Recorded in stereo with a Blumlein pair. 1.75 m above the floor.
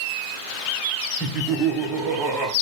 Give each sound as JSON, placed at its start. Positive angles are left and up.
{"t": 1.2, "sound": "laughter", "azimuth_deg": -5, "distance_m": 1.3}